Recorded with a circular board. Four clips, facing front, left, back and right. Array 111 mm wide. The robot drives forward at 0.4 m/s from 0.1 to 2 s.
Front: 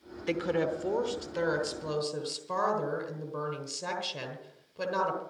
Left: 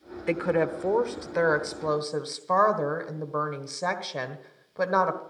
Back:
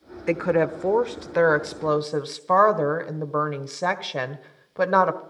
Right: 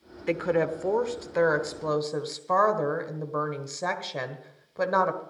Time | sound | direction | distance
0.3 | a woman speaking | 165° left | 0.8 m